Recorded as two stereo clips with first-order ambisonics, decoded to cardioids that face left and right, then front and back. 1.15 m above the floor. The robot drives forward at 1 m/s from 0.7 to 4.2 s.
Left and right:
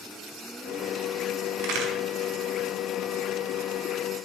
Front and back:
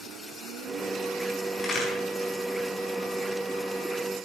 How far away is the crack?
About 5 m.